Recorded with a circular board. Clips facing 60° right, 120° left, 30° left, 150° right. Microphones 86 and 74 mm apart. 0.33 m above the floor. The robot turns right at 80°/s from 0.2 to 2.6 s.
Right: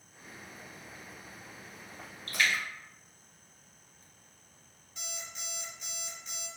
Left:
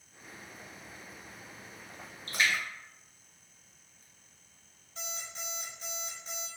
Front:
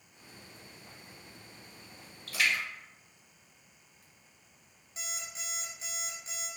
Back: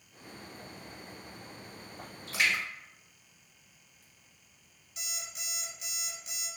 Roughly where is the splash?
Behind left.